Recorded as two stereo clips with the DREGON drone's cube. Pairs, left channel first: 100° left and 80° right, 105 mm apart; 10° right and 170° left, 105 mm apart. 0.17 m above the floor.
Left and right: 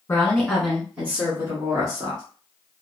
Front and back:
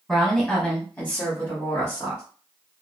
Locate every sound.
0.1 s a woman speaking: 70° left, 1.3 m; by 2.2 s 65° right, 1.7 m